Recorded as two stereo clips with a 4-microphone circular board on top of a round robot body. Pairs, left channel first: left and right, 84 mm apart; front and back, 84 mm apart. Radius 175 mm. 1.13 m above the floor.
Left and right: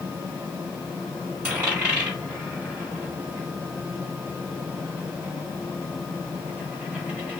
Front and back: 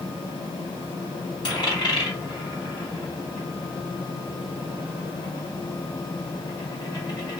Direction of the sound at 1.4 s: 25° right.